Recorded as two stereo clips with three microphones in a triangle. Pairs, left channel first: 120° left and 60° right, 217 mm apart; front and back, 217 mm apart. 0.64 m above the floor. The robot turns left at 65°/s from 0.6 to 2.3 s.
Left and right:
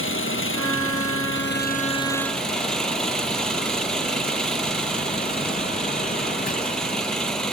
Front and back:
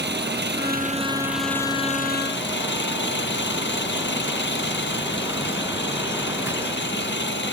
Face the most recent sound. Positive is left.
turn(degrees=30)